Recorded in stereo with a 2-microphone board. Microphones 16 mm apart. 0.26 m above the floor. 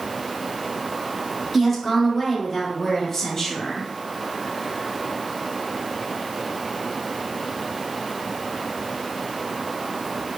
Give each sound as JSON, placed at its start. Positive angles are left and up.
{"t": 1.5, "sound": "a woman speaking", "side_deg": -10, "distance_m": 1.3}